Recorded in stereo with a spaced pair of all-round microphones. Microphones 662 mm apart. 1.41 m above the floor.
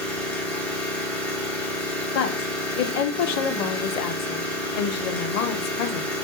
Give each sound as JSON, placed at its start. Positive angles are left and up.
{"t": 0.0, "sound": "an engine running", "side_deg": 0, "distance_m": 0.9}
{"t": 2.1, "sound": "a woman speaking", "side_deg": 75, "distance_m": 0.5}